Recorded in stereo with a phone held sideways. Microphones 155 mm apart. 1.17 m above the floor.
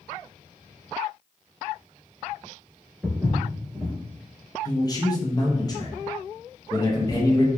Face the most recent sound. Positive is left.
turn(degrees=25)  # may be behind; listen again after turning